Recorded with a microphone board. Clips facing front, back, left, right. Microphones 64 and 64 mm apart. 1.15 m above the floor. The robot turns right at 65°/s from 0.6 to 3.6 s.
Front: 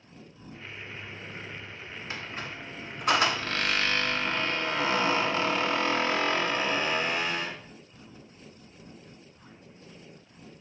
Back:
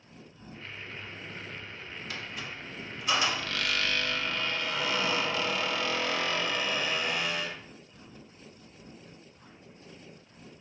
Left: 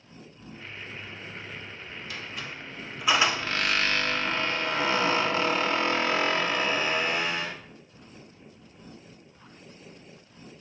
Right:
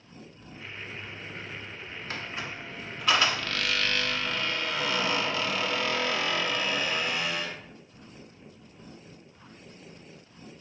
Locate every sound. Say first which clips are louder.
2.1 s a squeak: front 3 dB, right 3 dB; 55° right, 0.5 m; by 7.6 s 45° left, 0.5 m